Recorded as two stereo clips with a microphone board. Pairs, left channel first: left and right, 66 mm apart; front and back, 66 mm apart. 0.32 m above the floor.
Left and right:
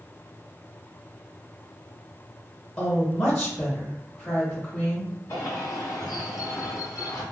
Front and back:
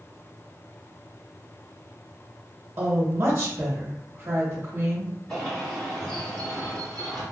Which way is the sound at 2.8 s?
140° left.